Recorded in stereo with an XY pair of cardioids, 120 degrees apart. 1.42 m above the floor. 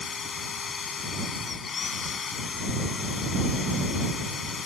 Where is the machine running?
35° left.